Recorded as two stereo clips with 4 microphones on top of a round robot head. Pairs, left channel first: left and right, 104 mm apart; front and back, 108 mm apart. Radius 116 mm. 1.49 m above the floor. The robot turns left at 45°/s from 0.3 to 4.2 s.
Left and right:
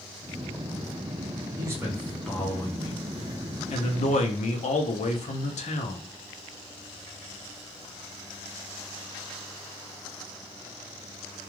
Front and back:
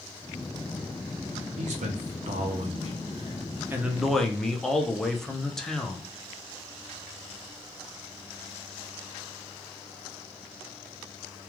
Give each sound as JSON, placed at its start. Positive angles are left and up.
{"t": 1.6, "sound": "a man speaking", "azimuth_deg": -155, "distance_m": 0.6}